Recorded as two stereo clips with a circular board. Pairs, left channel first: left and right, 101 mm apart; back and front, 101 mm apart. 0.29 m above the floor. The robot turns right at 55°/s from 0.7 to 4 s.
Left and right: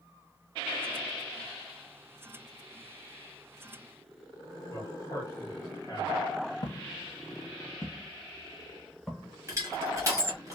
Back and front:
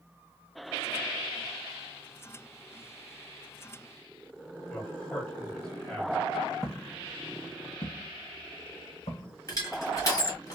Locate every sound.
4.7 s a man speaking: 105° left, 1.4 m
6.6 s footsteps: 95° left, 0.6 m; by 9.3 s straight behind, 1.6 m
9.5 s crushing: 140° right, 1.2 m